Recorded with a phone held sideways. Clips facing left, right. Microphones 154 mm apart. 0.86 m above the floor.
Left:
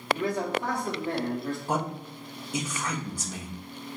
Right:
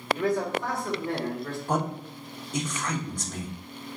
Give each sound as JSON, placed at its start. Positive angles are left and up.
{"t": 0.1, "sound": "a man speaking", "side_deg": 25, "distance_m": 1.6}
{"t": 1.7, "sound": "a man speaking", "side_deg": 10, "distance_m": 0.9}